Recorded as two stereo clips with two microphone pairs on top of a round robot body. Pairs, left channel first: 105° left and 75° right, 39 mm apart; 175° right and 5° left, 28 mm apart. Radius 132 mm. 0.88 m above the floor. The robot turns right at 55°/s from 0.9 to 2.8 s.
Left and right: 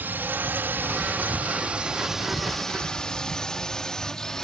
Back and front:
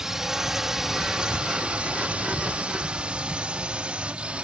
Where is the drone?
60° right; by 4.4 s 30° left.